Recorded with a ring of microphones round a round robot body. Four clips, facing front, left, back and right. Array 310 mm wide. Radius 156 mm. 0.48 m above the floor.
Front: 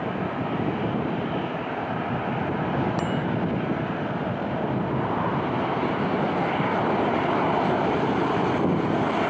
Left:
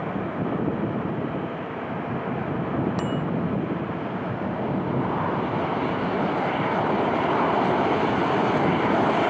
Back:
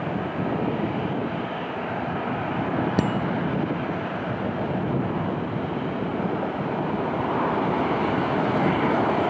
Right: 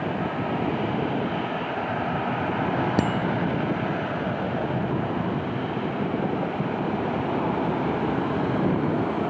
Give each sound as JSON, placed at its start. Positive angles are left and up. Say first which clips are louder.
{"t": 3.0, "sound": "a bicycle bell", "louder": "right 3 dB, back 2 dB", "azimuth_deg": -135}